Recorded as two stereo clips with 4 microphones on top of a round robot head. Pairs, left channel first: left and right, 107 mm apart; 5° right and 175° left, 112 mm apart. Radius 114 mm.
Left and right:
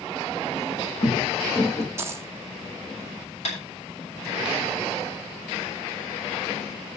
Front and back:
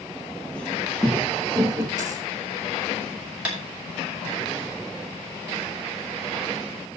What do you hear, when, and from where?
0.6 s footsteps: 75° left, 1.5 m; by 1.9 s 140° left, 1.1 m
2.0 s a dropped coin: 145° right, 0.6 m
3.5 s tapping: 95° left, 7 m